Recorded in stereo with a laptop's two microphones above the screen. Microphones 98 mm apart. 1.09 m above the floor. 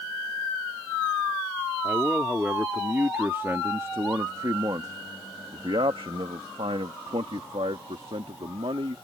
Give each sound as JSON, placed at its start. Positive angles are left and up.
{"t": 1.8, "sound": "a man speaking", "side_deg": -10}